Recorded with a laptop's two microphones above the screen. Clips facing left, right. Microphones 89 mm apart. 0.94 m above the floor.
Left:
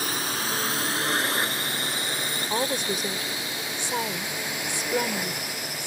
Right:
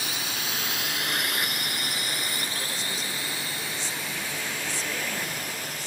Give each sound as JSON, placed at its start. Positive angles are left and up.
{"t": 0.0, "sound": "a drone", "side_deg": 40}
{"t": 2.5, "sound": "a woman speaking", "side_deg": 70}